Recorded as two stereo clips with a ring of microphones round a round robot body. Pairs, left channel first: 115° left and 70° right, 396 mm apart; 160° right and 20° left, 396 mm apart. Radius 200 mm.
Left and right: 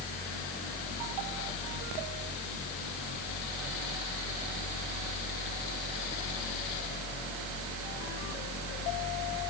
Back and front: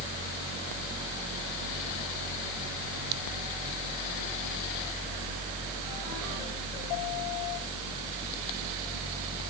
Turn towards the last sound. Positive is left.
No sound to turn to.